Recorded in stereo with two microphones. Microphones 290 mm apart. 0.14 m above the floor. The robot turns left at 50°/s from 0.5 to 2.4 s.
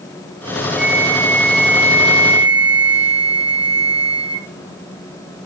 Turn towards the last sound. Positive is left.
turn(degrees=-85)